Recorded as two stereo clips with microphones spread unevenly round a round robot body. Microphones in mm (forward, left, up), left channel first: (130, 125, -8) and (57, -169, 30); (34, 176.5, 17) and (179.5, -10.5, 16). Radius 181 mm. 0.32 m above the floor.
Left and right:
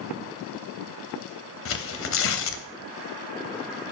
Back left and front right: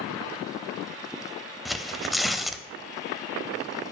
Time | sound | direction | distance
1.6 | tearing paper | 40° left | 0.7 m